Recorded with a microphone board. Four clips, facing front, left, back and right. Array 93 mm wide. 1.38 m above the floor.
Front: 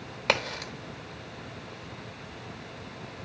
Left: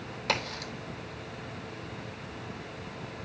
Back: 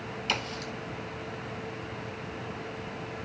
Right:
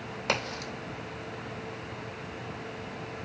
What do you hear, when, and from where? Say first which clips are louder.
0.3 s a crack: right 1 dB, front 6 dB; 15° right, 2.5 m